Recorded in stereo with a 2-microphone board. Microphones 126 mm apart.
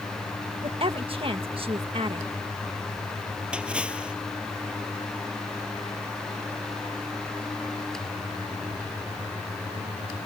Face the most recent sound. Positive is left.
turn(degrees=-10)  # may be behind; listen again after turning